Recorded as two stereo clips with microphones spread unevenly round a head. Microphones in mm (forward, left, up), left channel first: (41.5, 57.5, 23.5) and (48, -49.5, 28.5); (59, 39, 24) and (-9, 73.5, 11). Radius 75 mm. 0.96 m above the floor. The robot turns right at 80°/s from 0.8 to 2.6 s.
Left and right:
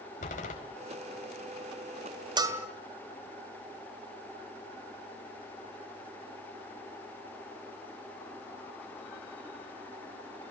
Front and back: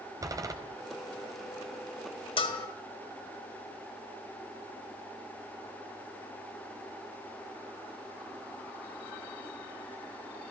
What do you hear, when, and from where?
0.2 s a door slam: 110° left, 4 m
2.4 s a bell: 35° right, 2.5 m; by 2.7 s 20° right, 2.5 m